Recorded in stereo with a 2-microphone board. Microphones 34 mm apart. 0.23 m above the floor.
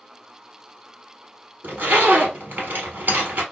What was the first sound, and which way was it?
A zipper, 70° right (ahead or behind).